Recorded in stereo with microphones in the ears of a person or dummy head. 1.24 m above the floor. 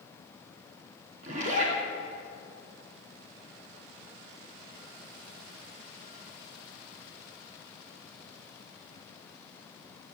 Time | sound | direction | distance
1.2 | a zipper | 50° right (ahead or behind) | 3 m